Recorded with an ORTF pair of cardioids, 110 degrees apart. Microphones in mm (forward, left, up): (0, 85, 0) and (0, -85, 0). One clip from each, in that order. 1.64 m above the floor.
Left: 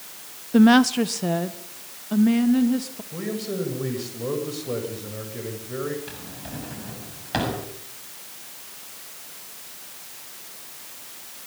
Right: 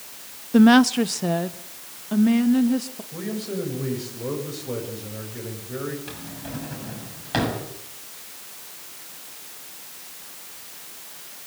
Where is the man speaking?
15° left, 8.5 m.